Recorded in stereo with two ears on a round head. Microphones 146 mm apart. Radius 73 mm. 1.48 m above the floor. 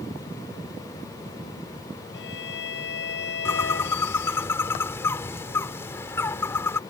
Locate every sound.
2.1 s a violin: 75° left (ahead or behind)
3.5 s a bird: 15° left (ahead or behind)